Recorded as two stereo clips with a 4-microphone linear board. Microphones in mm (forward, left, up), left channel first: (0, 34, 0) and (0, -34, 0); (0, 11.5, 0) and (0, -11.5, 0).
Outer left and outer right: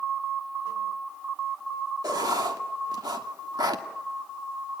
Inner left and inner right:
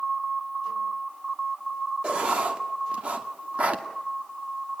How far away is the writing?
About 2 m.